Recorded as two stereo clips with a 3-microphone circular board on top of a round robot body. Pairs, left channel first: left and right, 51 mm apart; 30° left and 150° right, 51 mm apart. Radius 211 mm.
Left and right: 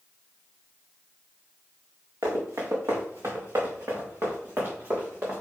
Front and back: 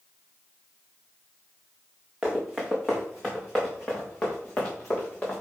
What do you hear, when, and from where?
2.2 s running footsteps: 75° right, 2.5 m; by 5.4 s 30° right, 4 m